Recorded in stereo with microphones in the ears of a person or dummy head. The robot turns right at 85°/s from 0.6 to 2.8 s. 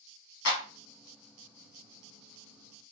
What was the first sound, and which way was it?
A clap, 75° left (ahead or behind).